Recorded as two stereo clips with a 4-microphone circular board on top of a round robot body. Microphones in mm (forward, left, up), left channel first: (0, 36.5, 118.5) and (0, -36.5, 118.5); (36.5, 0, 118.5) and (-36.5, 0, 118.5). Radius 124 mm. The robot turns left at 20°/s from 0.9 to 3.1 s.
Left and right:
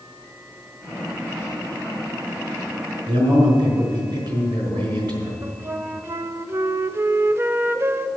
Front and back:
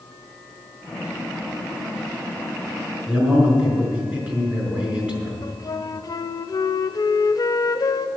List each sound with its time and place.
3.1 s a man speaking: 110° right, 5 m
5.4 s a flute: 35° right, 0.6 m